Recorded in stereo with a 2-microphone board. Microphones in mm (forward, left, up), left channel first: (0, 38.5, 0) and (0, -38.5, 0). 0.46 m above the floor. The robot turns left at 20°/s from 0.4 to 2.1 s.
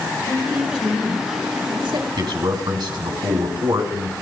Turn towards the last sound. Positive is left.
turn(degrees=-75)  # may be behind; listen again after turning